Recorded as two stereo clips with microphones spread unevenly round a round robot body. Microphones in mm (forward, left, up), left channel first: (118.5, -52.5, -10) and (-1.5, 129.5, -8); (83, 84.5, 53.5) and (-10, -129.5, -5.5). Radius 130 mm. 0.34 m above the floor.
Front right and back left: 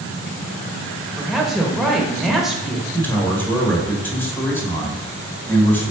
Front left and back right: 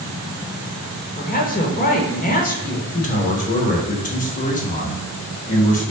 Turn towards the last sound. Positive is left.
turn(degrees=15)